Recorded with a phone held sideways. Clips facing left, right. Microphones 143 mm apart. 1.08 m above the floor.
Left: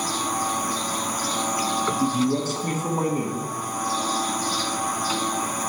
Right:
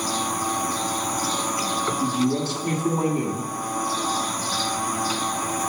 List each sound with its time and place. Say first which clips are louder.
2.0 s a man speaking: even; 45° left (ahead or behind), 1.4 m